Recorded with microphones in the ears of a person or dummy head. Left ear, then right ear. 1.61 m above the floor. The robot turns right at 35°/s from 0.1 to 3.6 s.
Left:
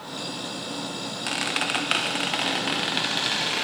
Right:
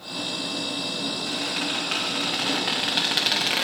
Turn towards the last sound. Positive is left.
turn(degrees=-160)